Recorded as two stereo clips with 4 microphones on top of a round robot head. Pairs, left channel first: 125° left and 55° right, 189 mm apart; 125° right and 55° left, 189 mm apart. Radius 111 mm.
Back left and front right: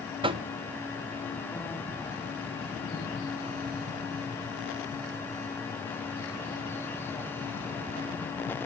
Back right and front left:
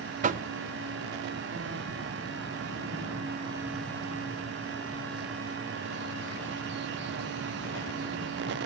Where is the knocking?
5° left, 0.6 m.